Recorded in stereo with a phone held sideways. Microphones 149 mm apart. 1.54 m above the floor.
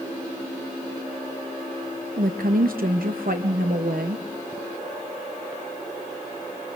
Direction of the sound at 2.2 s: 75° right (ahead or behind).